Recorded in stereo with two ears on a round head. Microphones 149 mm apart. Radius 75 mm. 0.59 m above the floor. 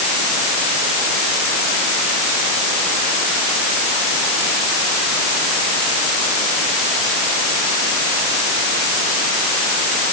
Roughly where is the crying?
I don't hear crying.